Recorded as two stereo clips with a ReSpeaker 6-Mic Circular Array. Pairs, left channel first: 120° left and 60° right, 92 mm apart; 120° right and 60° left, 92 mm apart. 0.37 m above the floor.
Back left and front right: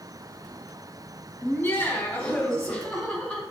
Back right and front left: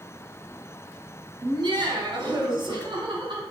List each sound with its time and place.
1.4 s laughter: 55° left, 2.5 m; by 3.4 s 30° left, 4 m